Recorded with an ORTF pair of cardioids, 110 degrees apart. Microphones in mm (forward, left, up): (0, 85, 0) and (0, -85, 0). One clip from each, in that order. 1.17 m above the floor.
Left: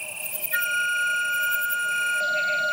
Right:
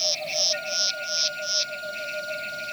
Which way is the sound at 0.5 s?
55° left.